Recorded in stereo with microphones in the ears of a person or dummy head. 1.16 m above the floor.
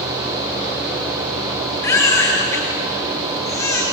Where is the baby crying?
20° left (ahead or behind), 6.5 m.